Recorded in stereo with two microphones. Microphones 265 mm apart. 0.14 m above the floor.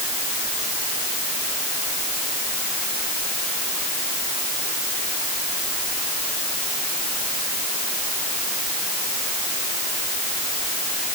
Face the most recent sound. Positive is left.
No sound to turn to.